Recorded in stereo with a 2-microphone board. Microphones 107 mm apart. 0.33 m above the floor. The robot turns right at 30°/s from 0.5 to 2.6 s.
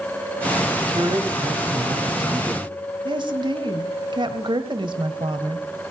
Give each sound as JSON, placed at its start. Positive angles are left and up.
{"t": 0.8, "sound": "a man speaking", "azimuth_deg": -100, "distance_m": 1.7}
{"t": 3.0, "sound": "a woman speaking", "side_deg": -50, "distance_m": 1.3}